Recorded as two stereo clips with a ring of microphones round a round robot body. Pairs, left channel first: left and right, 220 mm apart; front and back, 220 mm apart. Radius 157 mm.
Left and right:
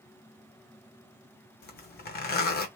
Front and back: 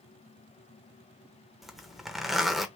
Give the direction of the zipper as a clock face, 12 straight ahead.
9 o'clock.